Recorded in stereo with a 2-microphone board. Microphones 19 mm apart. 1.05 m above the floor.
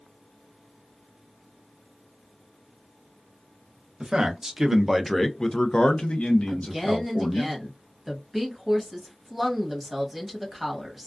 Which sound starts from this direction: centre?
A woman speaking, at 6.5 s.